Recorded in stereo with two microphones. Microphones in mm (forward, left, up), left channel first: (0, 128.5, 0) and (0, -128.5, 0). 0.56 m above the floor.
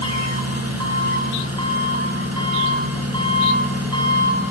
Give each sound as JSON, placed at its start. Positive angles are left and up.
{"t": 0.0, "sound": "an engine running", "side_deg": -75, "distance_m": 5.0}